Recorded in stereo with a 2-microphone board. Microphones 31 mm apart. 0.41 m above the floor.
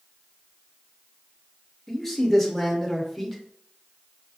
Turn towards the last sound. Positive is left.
turn(degrees=5)  # may be behind; listen again after turning